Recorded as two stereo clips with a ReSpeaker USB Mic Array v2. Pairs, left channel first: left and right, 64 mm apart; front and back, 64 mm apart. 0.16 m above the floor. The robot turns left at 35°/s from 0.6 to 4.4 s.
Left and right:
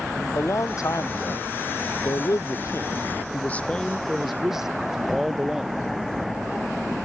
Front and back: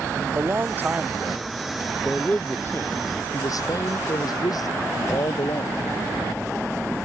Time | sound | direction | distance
0.3 | a man speaking | 125° left | ?